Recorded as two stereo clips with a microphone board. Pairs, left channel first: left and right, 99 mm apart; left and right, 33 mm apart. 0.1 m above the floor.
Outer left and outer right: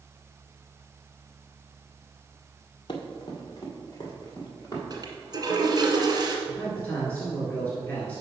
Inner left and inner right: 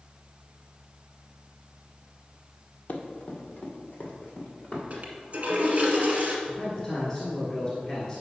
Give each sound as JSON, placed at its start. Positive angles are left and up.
{"t": 2.9, "sound": "running footsteps", "side_deg": 45, "distance_m": 1.4}
{"t": 4.9, "sound": "a toilet flushing", "side_deg": -40, "distance_m": 1.4}
{"t": 6.5, "sound": "a man speaking", "side_deg": 20, "distance_m": 1.8}